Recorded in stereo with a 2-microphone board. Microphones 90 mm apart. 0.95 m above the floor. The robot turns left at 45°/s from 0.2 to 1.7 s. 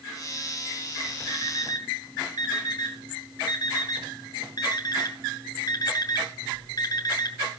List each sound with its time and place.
1.3 s an alarm clock: 65° left (ahead or behind), 2.5 m; by 7.4 s 45° left (ahead or behind), 2.5 m